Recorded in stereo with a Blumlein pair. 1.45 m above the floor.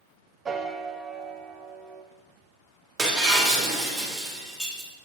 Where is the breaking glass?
5° right, 1.9 m.